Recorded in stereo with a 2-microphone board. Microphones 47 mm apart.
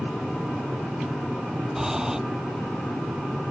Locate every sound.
1.8 s breathing: 15° right (ahead or behind)